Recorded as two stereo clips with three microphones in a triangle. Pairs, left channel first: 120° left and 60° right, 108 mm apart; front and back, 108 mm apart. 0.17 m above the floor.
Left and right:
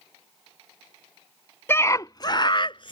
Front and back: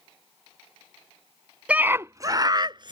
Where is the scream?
125° left; by 2.9 s 145° left.